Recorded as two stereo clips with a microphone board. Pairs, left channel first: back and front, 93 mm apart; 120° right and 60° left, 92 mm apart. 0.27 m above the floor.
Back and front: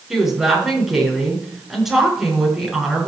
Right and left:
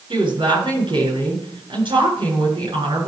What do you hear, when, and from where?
0.1 s a woman speaking: 85° left, 7 m